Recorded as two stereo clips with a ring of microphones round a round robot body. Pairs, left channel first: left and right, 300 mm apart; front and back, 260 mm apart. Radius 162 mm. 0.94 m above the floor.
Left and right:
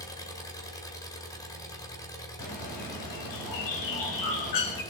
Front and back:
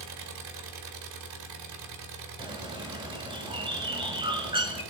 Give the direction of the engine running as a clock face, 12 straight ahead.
6 o'clock.